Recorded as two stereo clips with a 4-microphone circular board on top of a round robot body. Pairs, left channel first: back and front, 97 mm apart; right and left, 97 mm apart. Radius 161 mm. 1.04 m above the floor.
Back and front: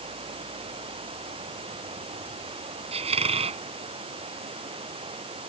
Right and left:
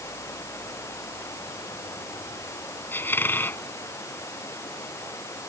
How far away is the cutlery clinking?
I don't hear cutlery clinking.